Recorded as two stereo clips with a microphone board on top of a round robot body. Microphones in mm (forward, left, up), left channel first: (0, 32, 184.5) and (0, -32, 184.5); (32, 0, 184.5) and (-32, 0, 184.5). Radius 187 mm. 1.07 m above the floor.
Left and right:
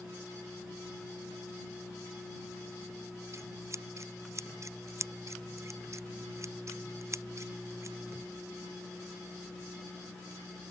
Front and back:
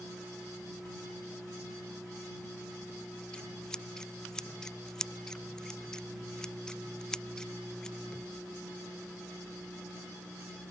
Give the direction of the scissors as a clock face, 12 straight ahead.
3 o'clock.